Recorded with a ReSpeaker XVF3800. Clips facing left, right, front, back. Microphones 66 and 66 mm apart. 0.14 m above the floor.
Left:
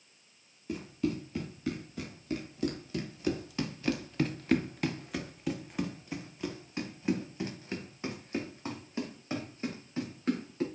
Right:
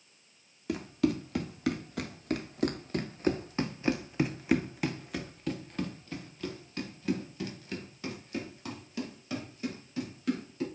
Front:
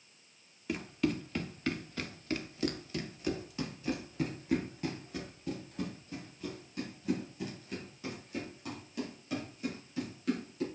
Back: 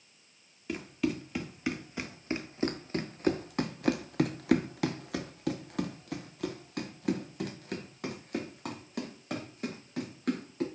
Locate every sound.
0.7 s running footsteps: 90° right, 1.7 m; by 10.7 s 145° left, 4 m